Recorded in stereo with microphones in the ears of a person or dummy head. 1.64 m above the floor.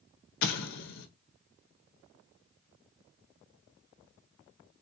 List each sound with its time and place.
0.4 s an explosion: 55° left (ahead or behind), 0.7 m